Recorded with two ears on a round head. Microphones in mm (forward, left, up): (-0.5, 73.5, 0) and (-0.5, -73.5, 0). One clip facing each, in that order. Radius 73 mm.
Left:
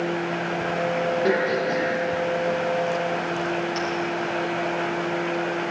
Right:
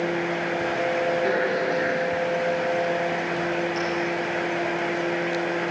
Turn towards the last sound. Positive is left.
turn(degrees=25)  # may be behind; listen again after turning